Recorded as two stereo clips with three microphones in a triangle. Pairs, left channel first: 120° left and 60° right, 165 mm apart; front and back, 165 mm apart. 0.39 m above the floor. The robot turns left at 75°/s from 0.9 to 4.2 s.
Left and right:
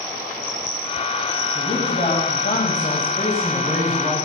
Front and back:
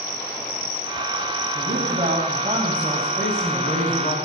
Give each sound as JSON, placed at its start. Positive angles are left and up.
{"t": 1.6, "sound": "a man speaking", "azimuth_deg": -170, "distance_m": 3.5}